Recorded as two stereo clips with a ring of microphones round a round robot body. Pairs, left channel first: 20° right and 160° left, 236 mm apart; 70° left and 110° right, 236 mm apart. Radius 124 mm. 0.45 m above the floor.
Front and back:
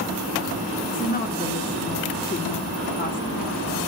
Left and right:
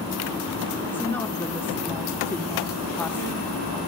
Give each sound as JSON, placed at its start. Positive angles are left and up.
{"t": 0.9, "sound": "a woman speaking", "azimuth_deg": -10, "distance_m": 0.9}